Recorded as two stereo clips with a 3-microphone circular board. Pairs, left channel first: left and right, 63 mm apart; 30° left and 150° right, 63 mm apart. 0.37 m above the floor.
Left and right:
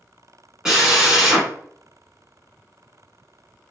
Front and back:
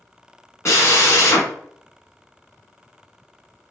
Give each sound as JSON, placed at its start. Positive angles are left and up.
{"t": 0.7, "sound": "a drill", "azimuth_deg": -10, "distance_m": 1.3}